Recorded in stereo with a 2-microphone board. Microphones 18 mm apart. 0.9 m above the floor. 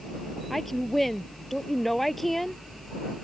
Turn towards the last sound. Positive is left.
turn(degrees=10)  # may be behind; listen again after turning